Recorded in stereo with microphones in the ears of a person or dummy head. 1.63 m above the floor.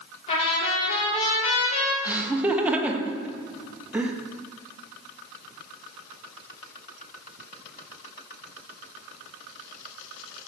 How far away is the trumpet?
About 2.5 m.